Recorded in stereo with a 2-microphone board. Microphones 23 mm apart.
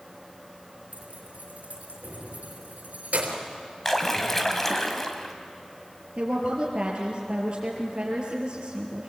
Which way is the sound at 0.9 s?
75° right (ahead or behind).